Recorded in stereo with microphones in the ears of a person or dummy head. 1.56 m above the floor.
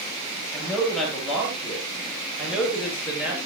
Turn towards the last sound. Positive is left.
turn(degrees=-5)  # may be behind; listen again after turning